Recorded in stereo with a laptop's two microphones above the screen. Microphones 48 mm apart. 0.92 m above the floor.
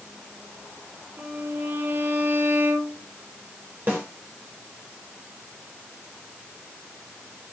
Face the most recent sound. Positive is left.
turn(degrees=-45)  # may be behind; listen again after turning